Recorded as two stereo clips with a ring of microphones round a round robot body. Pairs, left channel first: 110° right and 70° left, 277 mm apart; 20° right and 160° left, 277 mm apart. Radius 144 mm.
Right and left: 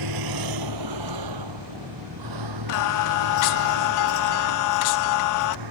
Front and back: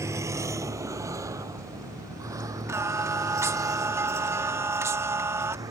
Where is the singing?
120° right.